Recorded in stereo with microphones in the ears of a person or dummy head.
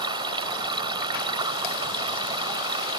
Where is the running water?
25° right (ahead or behind).